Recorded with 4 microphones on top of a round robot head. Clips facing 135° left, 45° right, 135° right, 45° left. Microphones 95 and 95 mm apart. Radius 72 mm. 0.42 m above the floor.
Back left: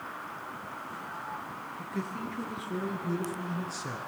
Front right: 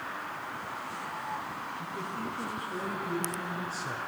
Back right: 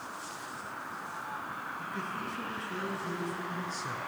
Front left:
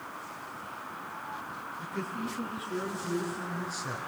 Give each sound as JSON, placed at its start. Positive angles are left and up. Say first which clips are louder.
{"t": 1.8, "sound": "a man speaking", "louder": "back left 3 dB, front left 4 dB", "azimuth_deg": 130, "distance_m": 7.0}